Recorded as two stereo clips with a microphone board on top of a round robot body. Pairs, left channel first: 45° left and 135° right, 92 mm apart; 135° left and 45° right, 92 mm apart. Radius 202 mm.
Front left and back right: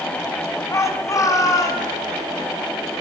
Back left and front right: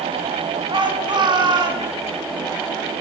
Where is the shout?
15° right, 5.5 m; by 1.9 s 5° right, 7.5 m.